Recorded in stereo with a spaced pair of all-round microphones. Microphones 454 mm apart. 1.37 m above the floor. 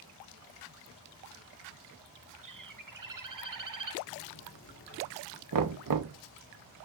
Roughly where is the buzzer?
Left.